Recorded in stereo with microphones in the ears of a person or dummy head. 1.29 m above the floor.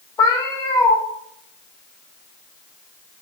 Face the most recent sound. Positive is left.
turn(degrees=15)  # may be behind; listen again after turning